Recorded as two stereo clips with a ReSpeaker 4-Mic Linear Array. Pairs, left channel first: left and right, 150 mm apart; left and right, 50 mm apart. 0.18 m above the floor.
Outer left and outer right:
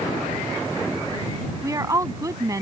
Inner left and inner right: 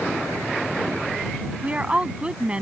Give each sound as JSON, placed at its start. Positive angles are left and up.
{"t": 1.6, "sound": "a woman speaking", "side_deg": -25}